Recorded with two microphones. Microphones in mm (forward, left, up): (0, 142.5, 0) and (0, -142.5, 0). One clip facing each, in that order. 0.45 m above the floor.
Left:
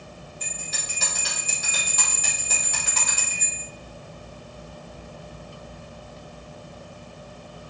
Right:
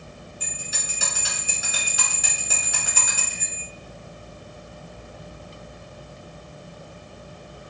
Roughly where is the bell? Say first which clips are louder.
Even; centre.